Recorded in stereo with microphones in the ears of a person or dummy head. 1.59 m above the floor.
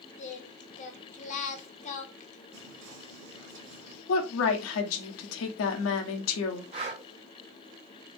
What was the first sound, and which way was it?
Singing, 40° left (ahead or behind).